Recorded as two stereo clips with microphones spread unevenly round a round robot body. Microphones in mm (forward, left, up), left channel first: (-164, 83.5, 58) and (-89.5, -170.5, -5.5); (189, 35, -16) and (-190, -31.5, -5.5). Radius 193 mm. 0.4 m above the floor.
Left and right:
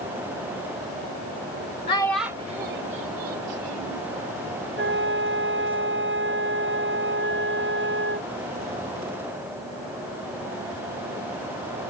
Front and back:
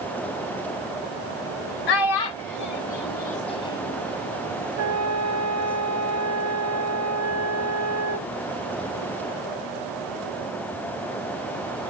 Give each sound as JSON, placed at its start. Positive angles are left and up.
{"t": 1.9, "sound": "a child speaking", "azimuth_deg": 25}
{"t": 4.8, "sound": "a flute", "azimuth_deg": -120}